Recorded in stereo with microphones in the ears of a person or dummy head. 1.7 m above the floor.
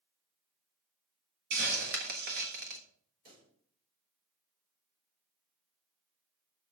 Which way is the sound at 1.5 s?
50° right (ahead or behind).